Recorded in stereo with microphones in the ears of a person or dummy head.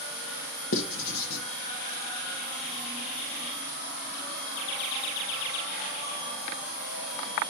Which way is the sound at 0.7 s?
65° left (ahead or behind).